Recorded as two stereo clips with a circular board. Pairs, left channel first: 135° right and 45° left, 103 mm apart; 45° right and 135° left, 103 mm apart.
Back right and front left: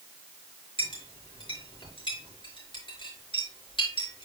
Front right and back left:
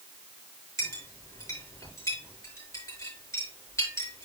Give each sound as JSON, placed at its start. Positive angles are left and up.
{"t": 0.8, "sound": "a clink", "azimuth_deg": -105, "distance_m": 5.0}